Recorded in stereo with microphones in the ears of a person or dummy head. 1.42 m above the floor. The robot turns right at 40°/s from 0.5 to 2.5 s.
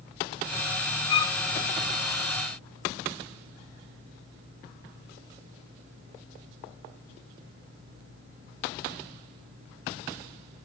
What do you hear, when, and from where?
1.1 s a violin: 35° left (ahead or behind), 0.5 m; by 1.4 s 20° left (ahead or behind), 0.5 m